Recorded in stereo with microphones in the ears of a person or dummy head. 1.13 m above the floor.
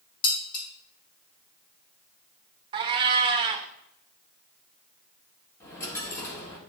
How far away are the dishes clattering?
About 2.5 m.